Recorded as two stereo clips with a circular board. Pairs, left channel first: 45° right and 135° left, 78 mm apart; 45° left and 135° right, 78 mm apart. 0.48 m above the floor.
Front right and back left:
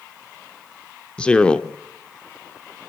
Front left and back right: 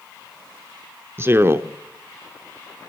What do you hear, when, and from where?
1.2 s a man speaking: 115° right, 0.9 m